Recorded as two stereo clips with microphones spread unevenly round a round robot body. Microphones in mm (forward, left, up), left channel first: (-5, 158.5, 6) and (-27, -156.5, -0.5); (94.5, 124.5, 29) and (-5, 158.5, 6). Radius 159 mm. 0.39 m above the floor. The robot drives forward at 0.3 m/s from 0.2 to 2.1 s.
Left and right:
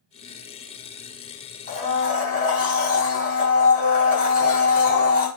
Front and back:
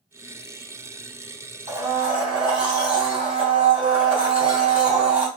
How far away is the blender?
About 2.5 m.